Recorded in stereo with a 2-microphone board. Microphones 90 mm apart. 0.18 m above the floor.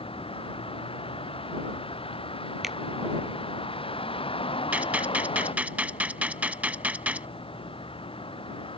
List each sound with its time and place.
0.0 s a vehicle: 80° left; by 8.8 s 75° left (ahead or behind)
2.6 s a finger snap: 5° right (ahead or behind)
4.7 s a gunshot: 15° right (ahead or behind)